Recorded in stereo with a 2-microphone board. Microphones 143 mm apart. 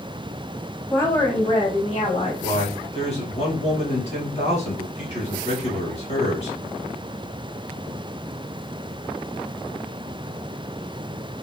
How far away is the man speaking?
About 3.5 m.